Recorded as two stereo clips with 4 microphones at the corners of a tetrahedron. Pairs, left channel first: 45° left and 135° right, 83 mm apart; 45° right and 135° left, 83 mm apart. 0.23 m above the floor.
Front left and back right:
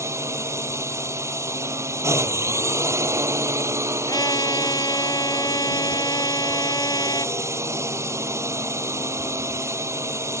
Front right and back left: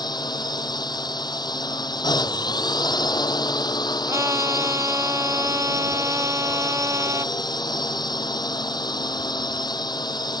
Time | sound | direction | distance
0.0 | a drone | 80° right | ?
4.1 | a trumpet | 80° left | ?